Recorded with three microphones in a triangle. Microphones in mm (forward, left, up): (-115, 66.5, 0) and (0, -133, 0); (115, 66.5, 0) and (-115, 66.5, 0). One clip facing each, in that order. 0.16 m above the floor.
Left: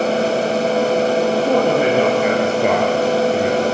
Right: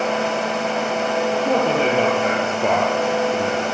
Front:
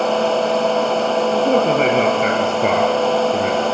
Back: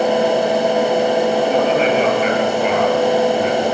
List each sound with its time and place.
1.3 s a man speaking: 45° left, 4.5 m